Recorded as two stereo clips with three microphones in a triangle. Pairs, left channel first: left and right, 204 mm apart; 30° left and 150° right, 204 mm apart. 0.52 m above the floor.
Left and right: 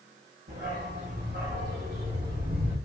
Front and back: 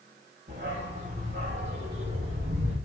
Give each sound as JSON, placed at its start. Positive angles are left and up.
{"t": 0.5, "sound": "a dog barking", "azimuth_deg": -120, "distance_m": 6.5}